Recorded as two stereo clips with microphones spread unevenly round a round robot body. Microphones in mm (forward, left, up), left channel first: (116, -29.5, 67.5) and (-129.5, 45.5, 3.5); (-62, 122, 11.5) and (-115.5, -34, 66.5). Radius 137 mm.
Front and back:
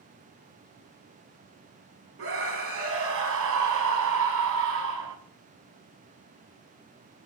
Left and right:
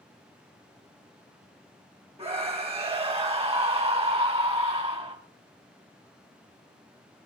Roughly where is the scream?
Behind.